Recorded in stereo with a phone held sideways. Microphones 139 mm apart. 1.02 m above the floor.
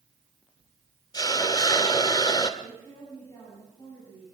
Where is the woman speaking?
25° left (ahead or behind), 9 m.